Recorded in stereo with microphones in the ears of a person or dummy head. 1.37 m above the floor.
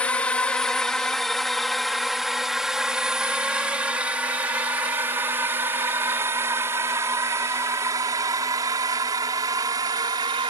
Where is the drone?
5° left (ahead or behind); by 10.5 s 20° right (ahead or behind).